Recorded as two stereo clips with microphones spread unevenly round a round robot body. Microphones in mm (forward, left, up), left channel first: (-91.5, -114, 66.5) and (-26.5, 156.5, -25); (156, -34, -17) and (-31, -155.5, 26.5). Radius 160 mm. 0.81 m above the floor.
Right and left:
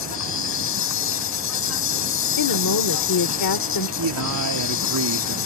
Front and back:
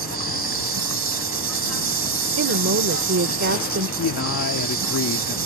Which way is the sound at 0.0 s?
135° right.